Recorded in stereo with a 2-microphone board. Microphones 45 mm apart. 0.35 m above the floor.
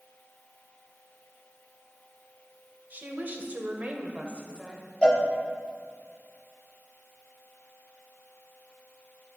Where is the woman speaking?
40° right (ahead or behind), 1.2 m; by 4.9 s 15° right (ahead or behind), 1.2 m.